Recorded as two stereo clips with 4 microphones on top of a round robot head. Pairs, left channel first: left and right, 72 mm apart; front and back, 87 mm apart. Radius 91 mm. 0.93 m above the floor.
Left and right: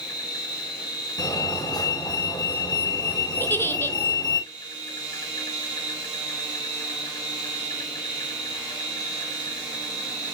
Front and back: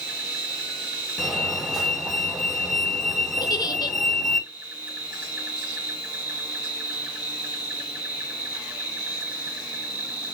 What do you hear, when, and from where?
0.0 s an insect: 105° left, 3 m
1.2 s a fire alarm: 90° left, 2.5 m
3.4 s a giggle: 35° left, 1.2 m